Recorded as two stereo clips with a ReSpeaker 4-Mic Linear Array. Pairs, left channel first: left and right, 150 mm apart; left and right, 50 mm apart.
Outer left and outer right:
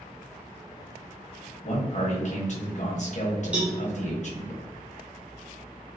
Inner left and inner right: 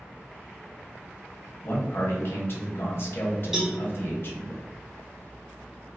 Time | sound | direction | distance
1.6 | a man speaking | 55° left (ahead or behind) | 0.9 m
3.5 | a cowbell | 10° right (ahead or behind) | 0.9 m